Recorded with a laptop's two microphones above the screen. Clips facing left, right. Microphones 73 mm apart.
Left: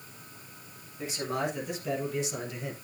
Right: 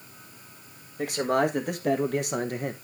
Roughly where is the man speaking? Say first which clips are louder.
Right 8 dB; right.